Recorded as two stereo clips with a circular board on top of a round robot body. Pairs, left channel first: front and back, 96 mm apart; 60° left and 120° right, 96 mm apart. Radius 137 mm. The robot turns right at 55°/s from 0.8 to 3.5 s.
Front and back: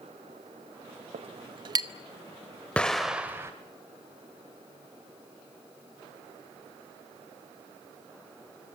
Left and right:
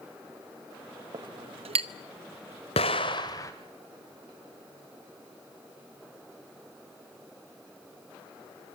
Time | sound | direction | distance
1.1 | a clink | 165° right | 0.9 m
2.8 | an explosion | 75° left | 1.1 m